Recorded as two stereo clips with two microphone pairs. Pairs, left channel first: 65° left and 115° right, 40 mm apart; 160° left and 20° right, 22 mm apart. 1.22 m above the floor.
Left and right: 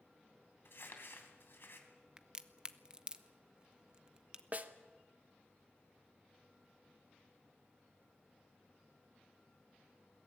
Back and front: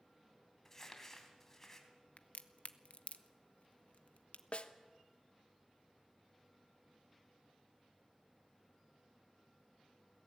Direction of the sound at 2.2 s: 175° left.